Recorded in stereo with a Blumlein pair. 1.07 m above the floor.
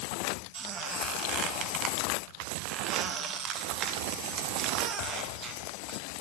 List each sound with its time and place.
0.5 s a squeak: 30° right, 1.2 m